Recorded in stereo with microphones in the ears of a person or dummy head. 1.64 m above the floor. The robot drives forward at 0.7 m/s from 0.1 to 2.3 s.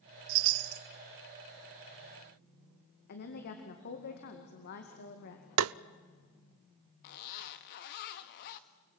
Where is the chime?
60° right (ahead or behind), 0.6 m; by 0.8 s 45° right (ahead or behind), 0.7 m.